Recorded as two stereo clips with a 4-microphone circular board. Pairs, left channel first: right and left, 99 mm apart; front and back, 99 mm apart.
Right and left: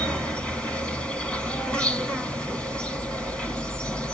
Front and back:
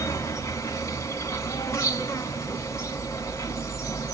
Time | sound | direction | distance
0.0 | an insect | 20° right | 1.5 m